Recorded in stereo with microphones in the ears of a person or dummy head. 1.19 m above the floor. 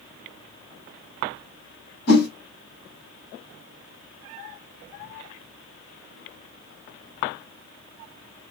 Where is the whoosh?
65° left (ahead or behind), 1.8 m.